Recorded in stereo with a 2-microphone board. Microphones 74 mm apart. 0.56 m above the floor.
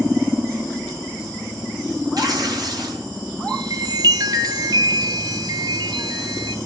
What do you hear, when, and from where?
2.2 s tearing paper: 60° right (ahead or behind), 4 m
3.5 s a chime: 60° right (ahead or behind), 1.1 m